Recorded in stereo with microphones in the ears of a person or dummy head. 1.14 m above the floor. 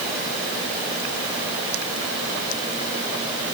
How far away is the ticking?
No ticking in this recording.